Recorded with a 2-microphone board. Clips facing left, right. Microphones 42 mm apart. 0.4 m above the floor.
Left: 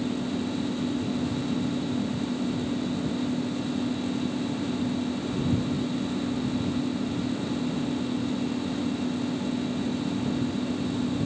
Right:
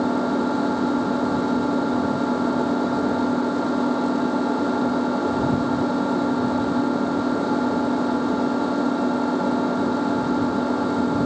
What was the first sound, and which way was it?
An engine running, 70° right (ahead or behind).